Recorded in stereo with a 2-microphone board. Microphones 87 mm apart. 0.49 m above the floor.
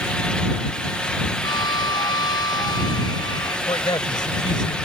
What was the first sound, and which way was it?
A violin, 55° left (ahead or behind).